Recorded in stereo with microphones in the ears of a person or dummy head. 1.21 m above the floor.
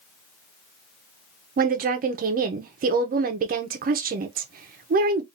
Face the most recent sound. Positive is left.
turn(degrees=-40)  # may be behind; listen again after turning